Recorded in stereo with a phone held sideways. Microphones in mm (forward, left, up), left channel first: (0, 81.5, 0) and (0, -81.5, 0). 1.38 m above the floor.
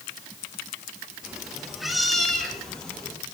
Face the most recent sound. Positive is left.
turn(degrees=5)  # may be behind; listen again after turning